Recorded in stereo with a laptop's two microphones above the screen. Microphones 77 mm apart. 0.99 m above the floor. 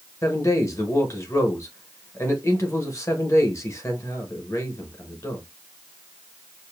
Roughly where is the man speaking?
Left.